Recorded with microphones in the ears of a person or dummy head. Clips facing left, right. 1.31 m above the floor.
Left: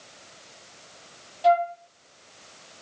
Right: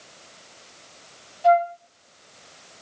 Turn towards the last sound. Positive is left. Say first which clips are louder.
# right 2 dB
turn(degrees=60)  # may be behind; listen again after turning